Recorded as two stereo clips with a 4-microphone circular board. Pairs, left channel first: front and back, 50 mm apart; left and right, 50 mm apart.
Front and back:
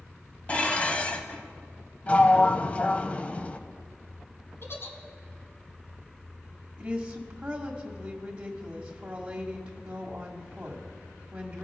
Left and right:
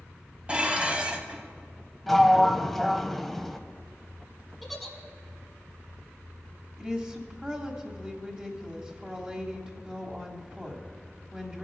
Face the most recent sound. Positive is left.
turn(degrees=-140)